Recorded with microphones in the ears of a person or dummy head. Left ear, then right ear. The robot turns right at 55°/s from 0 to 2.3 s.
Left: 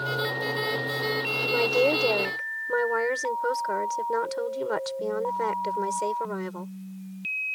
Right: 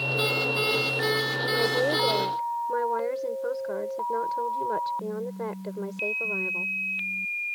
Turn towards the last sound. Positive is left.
turn(degrees=110)